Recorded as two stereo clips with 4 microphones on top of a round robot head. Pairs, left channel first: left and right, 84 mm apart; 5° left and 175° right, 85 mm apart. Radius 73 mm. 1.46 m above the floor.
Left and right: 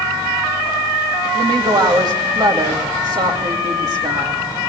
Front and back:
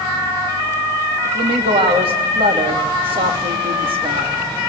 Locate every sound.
1.2 s a woman speaking: 140° right, 3 m